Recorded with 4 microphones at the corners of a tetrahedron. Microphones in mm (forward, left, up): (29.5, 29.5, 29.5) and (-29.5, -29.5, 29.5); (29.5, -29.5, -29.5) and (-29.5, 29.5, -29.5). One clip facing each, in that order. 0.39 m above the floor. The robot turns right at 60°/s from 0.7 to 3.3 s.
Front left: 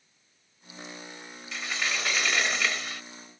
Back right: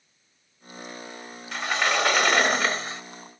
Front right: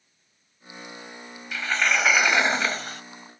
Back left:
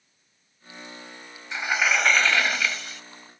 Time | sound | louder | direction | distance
1.5 | a sliding door | back right 8 dB, even | 160° right | ?